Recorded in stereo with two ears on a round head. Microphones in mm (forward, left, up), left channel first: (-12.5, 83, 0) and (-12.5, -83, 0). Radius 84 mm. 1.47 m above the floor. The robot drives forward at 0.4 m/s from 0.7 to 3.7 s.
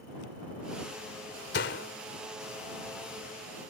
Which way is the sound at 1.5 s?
60° left (ahead or behind).